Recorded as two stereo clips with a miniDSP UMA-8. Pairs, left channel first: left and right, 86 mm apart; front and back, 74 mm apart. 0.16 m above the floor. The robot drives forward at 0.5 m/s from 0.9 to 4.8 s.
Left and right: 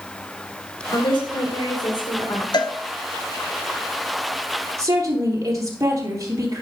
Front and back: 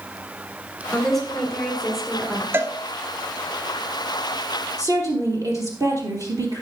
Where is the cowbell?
120° left, 0.7 m; by 2.8 s 130° left, 0.8 m.